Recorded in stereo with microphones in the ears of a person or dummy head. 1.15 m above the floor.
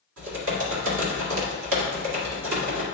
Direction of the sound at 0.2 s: 70° right (ahead or behind).